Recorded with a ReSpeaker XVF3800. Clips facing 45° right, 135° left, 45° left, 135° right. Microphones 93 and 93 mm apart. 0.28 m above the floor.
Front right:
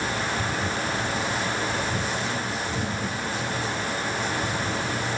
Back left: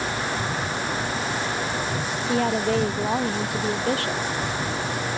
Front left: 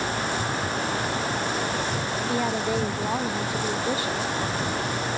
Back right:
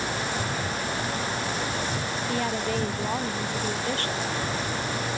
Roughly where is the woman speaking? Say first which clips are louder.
Back left 7 dB, front left 2 dB; behind left.